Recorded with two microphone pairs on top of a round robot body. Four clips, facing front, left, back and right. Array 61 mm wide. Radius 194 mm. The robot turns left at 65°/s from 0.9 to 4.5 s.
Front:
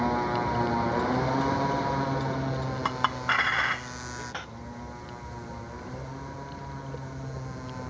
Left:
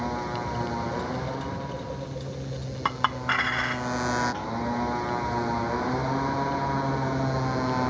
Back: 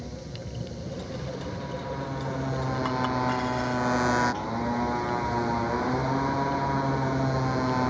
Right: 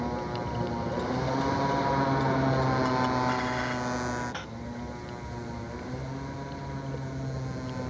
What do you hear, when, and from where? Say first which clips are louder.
0.0 s a motorcycle: left 2 dB, front 13 dB; 15° left; by 7.9 s 140° left
2.9 s a clink: even, front 1 dB; 75° left; by 4.5 s 30° right